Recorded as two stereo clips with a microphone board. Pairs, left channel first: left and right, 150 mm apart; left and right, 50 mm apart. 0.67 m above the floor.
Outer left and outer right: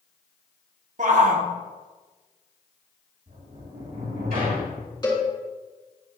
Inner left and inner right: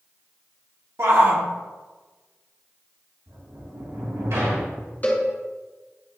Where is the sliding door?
85° right, 3 m.